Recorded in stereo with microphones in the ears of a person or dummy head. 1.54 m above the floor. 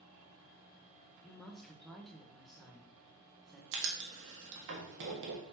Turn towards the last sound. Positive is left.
turn(degrees=-65)  # may be behind; listen again after turning